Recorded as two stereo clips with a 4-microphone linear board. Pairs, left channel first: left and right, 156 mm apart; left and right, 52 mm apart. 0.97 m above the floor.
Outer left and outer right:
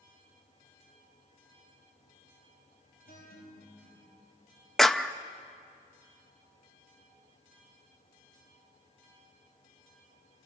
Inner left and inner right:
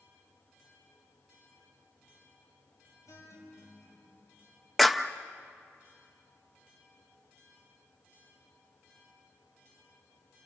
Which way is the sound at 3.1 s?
85° left.